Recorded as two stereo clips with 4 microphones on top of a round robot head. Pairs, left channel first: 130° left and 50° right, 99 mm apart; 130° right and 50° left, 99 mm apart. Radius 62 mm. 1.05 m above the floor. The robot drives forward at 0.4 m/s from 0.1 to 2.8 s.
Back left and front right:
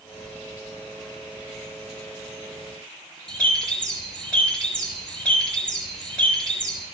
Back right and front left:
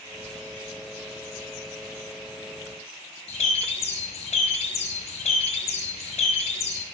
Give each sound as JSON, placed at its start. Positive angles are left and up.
{"t": 3.3, "sound": "a bird", "azimuth_deg": -150, "distance_m": 3.5}